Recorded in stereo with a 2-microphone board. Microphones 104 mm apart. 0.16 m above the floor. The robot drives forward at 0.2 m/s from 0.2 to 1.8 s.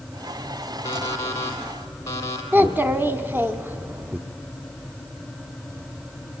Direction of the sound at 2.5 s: 20° right (ahead or behind).